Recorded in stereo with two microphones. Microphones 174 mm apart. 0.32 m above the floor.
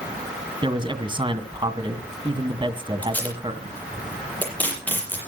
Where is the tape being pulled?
10° left (ahead or behind), 7.5 m.